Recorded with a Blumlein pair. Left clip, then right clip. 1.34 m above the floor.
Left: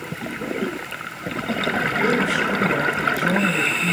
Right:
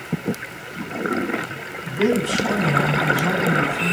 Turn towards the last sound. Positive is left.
turn(degrees=-35)